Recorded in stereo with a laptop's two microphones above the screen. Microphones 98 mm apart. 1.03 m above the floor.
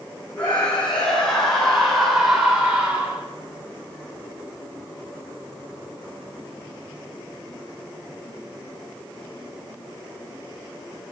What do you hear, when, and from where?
0.4 s a scream: 10° left (ahead or behind), 5.5 m; by 3.2 s 15° right (ahead or behind), 3.5 m